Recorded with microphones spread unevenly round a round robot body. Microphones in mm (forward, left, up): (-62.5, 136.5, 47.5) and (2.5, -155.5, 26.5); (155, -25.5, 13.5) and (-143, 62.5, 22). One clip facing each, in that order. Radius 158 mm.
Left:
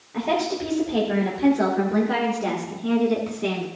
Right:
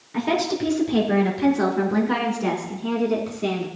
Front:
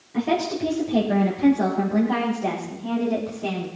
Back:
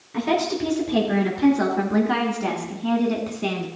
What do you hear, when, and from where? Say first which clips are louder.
0.1 s a woman speaking: right 2 dB, even; 130° right, 5 m; by 3.7 s 170° right, 3 m